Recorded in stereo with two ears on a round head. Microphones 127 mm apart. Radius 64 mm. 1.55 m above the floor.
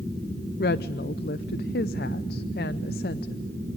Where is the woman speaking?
75° left (ahead or behind), 0.6 m.